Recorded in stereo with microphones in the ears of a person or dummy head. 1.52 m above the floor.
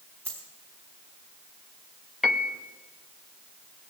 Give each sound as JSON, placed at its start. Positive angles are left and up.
{"t": 0.2, "sound": "a dropped coin", "side_deg": -20, "distance_m": 3.0}
{"t": 2.2, "sound": "a piano", "side_deg": -5, "distance_m": 0.8}